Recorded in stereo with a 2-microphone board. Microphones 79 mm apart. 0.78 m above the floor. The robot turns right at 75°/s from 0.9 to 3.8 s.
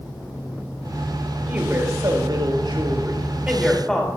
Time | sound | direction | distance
1.4 | a woman speaking | 165° right | 2.5 m